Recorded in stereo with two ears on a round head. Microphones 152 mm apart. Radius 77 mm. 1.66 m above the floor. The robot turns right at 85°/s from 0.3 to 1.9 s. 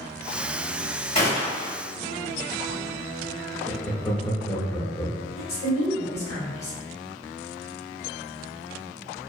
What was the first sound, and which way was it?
A gunshot, 40° left.